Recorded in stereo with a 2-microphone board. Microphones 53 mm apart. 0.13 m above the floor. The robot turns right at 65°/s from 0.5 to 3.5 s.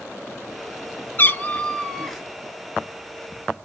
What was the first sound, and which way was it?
A cat meowing, 115° left.